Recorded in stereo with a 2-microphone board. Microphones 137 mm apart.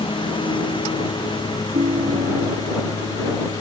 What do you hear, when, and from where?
0.0 s a lawn mower: 35° left (ahead or behind); by 3.6 s 25° left (ahead or behind)
1.7 s a ringtone: 70° right (ahead or behind)